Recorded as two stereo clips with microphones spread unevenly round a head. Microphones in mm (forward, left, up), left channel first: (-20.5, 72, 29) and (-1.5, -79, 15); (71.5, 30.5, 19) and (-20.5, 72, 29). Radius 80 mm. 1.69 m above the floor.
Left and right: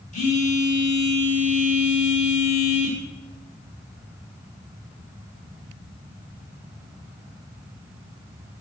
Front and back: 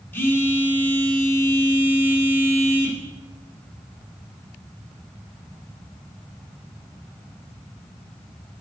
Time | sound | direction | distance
0.1 | a phone buzzing | 45° left | 2.5 m